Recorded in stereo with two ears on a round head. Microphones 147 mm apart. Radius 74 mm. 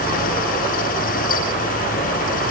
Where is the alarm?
I don't hear an alarm.